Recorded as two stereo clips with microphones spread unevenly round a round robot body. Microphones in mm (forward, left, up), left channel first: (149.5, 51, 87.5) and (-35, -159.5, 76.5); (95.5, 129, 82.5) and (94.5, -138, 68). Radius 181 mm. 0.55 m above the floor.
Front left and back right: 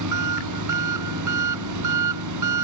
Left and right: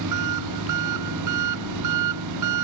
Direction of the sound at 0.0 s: 115° right.